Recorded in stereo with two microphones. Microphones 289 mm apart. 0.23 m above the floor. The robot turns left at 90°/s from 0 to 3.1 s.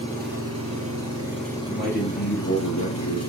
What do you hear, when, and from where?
0.0 s an engine running: 15° right, 4 m; by 3.3 s 65° left, 4 m
1.7 s a man speaking: 155° right, 6 m; by 3.2 s 75° left, 6 m